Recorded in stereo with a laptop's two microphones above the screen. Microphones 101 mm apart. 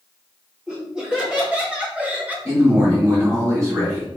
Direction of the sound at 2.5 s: 35° right (ahead or behind).